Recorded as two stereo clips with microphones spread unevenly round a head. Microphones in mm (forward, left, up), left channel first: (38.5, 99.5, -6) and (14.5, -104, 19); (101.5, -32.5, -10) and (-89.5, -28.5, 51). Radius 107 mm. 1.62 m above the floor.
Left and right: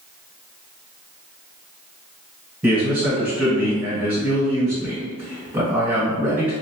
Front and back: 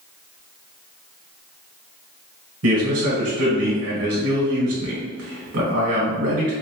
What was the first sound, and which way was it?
A man speaking, straight behind.